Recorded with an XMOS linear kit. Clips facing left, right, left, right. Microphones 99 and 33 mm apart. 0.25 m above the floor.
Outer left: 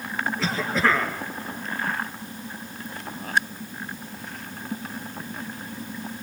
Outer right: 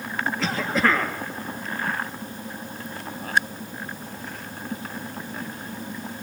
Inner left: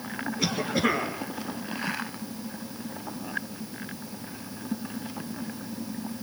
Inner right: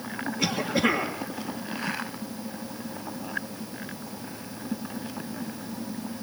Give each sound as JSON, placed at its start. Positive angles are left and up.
{"t": 0.4, "sound": "a cough", "side_deg": 0, "distance_m": 3.0}